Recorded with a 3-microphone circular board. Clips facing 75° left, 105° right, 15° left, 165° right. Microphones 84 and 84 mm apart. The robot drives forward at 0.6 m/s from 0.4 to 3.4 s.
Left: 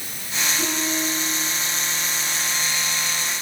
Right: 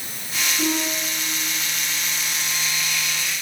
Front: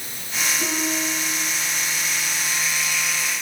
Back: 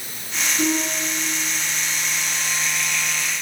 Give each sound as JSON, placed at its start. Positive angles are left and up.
{"t": 0.6, "sound": "a piano", "azimuth_deg": 165, "distance_m": 10.0}